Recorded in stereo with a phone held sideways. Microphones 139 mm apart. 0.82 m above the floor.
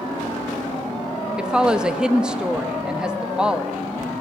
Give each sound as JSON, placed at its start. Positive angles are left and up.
{"t": 1.4, "sound": "a woman speaking", "side_deg": -5, "distance_m": 0.8}